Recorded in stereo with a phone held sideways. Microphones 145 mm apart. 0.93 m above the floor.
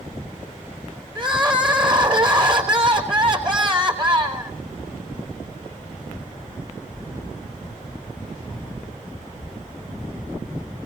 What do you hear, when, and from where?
1.1 s crying: 35° right (ahead or behind), 3.5 m